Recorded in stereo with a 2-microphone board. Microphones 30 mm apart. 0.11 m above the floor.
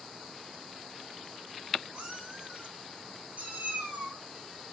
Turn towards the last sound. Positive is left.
turn(degrees=-70)  # may be behind; listen again after turning